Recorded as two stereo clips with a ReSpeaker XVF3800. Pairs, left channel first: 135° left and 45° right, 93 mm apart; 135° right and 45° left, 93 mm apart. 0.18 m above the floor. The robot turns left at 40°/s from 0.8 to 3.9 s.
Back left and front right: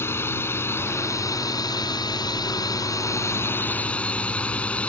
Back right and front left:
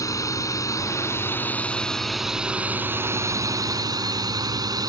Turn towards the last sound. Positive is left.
turn(degrees=65)